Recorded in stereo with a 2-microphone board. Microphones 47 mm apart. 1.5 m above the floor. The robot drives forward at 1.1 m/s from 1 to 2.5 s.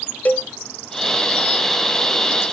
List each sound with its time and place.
0.2 s a cowbell: 35° left (ahead or behind), 0.8 m